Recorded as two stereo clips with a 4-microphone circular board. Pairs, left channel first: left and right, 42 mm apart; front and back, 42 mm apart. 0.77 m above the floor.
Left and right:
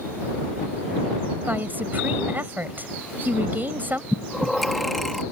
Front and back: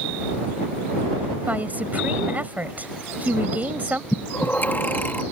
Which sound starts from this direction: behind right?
A woman speaking, at 1.5 s.